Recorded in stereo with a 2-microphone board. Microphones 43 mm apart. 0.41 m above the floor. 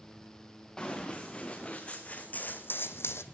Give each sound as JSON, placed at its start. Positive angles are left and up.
{"t": 0.8, "sound": "running footsteps", "side_deg": 15, "distance_m": 3.0}